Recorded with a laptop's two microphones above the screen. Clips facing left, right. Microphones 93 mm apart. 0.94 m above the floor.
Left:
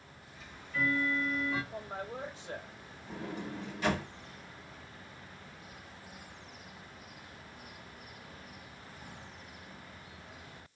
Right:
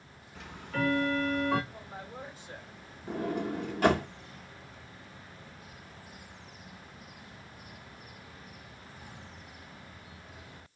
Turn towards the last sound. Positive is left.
turn(degrees=-50)  # may be behind; listen again after turning